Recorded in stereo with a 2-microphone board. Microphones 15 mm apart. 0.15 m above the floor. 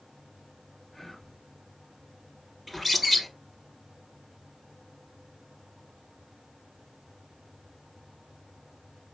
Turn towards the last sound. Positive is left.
turn(degrees=-5)  # may be behind; listen again after turning